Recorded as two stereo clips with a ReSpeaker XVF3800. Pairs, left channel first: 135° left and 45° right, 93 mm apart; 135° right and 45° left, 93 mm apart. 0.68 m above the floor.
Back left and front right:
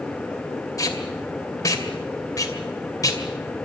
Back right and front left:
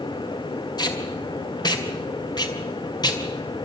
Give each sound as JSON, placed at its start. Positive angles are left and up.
{"t": 0.8, "sound": "tape being pulled", "azimuth_deg": -175, "distance_m": 2.5}